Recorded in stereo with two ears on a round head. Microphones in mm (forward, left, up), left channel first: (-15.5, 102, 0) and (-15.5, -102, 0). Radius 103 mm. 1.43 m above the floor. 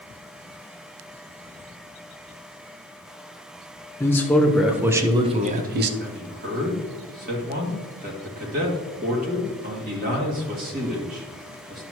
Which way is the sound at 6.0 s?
40° right (ahead or behind).